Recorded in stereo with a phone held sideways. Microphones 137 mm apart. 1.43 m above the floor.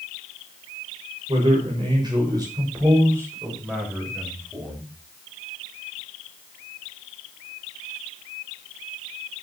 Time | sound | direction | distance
1.3 | a man speaking | 40° right (ahead or behind) | 6.5 m